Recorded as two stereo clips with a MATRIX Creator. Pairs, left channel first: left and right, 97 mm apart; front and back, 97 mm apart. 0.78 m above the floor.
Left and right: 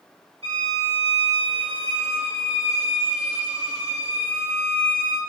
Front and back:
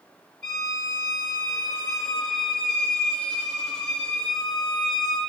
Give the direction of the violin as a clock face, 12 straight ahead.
3 o'clock.